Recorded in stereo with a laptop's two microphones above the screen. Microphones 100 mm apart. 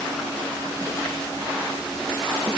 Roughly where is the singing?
No singing in this recording.